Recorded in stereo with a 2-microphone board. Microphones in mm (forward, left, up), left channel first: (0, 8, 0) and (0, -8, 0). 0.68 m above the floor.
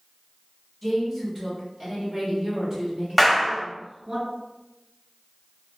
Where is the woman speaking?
5° left (ahead or behind), 1.3 m; by 4.2 s 55° right (ahead or behind), 2.0 m.